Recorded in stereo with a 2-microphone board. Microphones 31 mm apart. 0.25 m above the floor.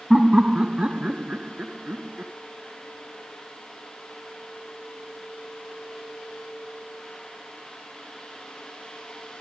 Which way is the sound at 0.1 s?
20° right (ahead or behind).